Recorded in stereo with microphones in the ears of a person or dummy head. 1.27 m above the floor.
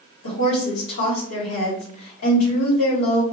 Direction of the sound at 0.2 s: 85° left.